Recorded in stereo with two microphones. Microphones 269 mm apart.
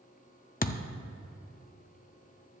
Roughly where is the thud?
Left.